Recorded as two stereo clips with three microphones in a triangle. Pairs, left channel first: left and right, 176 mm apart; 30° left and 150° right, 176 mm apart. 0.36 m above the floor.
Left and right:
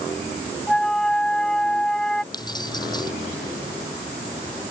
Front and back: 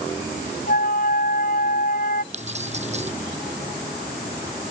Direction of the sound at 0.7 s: 5° left.